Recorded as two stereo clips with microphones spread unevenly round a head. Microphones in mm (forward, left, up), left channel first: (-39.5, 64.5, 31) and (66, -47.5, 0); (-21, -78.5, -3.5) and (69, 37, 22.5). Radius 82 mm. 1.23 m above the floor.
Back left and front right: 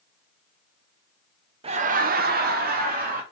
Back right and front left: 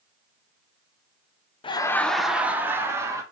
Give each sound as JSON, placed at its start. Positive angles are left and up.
{"t": 1.6, "sound": "laughter", "azimuth_deg": -85, "distance_m": 0.5}